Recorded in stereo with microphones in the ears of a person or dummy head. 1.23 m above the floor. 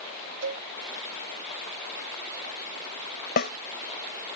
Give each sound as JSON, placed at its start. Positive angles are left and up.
{"t": 0.4, "sound": "a cowbell", "side_deg": -65}
{"t": 3.4, "sound": "a snare drum", "side_deg": 55}